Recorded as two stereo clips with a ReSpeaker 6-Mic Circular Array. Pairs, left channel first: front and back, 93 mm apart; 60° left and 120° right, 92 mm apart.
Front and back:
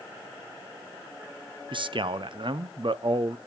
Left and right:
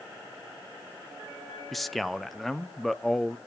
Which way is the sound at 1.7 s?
150° left.